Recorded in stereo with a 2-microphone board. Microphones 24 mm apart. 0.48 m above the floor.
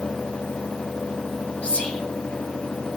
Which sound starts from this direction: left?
Whispering, at 1.6 s.